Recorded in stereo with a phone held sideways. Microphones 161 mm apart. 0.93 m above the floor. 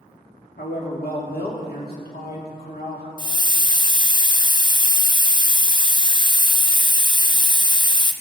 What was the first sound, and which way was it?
A man speaking, 65° left (ahead or behind).